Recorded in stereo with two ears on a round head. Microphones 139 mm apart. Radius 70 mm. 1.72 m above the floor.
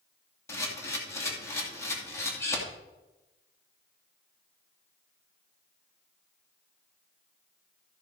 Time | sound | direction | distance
0.5 | a camera shutter | 20° left (ahead or behind) | 2.5 m